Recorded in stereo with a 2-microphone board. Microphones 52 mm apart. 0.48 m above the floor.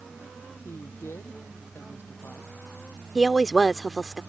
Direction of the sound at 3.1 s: 5° right (ahead or behind).